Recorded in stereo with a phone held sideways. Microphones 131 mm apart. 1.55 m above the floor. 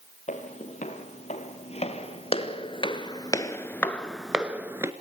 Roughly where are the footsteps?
Left.